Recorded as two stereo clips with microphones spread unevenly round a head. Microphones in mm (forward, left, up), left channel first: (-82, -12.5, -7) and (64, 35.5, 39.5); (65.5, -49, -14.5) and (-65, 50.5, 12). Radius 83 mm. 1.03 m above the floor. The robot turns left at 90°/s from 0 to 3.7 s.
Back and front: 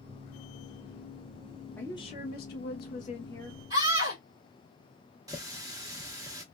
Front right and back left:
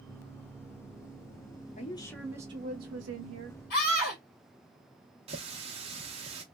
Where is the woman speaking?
85° right, 0.9 m; by 3.6 s 110° left, 0.9 m.